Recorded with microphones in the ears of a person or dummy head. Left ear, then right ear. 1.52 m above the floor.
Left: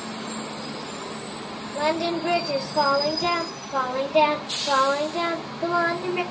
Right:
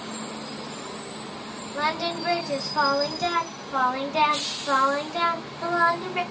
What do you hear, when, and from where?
1.7 s singing: 55° right (ahead or behind), 0.9 m